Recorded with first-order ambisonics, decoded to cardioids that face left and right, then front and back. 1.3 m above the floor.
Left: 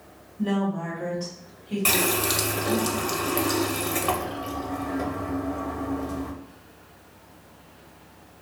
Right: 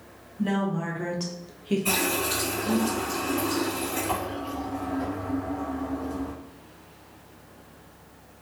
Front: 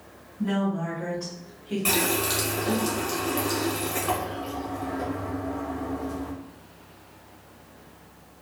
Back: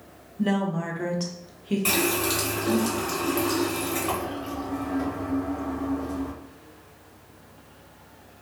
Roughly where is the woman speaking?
Behind.